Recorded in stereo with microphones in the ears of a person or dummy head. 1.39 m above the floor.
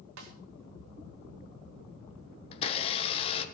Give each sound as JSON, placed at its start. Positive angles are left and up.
{"t": 0.2, "sound": "a snare drum", "side_deg": -75, "distance_m": 1.8}
{"t": 2.5, "sound": "a blender", "side_deg": 30, "distance_m": 1.2}